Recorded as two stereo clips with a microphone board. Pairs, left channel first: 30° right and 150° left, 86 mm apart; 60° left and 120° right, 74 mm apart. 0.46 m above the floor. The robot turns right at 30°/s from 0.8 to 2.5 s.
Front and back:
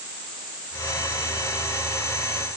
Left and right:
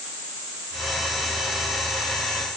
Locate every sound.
Only background noise.